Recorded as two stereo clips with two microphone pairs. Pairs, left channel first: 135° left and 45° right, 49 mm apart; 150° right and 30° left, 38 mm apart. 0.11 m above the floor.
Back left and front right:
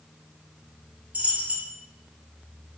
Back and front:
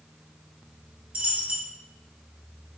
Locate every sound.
1.1 s a dropped coin: straight ahead, 1.0 m